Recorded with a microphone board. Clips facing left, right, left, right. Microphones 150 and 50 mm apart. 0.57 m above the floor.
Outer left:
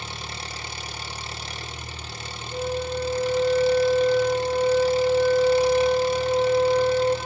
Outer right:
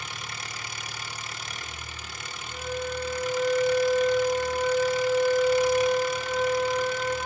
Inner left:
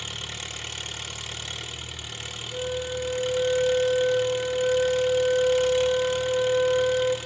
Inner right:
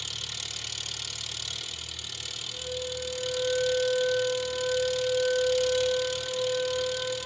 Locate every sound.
0.0 s an engine running: 30° left (ahead or behind), 0.7 m
2.5 s a flute: 45° left (ahead or behind), 2.5 m